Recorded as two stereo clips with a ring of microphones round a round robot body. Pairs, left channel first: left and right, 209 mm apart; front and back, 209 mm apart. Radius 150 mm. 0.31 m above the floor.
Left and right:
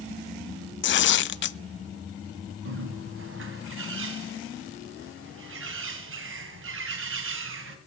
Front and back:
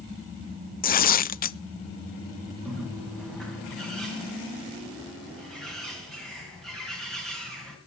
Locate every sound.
0.8 s tearing paper: 50° left, 0.7 m
2.6 s a bird: 90° right, 3 m